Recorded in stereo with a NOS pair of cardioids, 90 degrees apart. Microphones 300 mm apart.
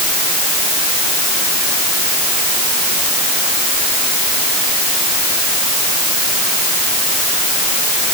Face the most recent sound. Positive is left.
No sound to turn to.